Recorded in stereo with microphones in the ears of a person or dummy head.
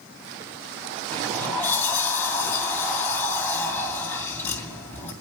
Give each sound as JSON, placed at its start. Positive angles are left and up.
{"t": 1.1, "sound": "a sliding door", "side_deg": 10, "distance_m": 2.5}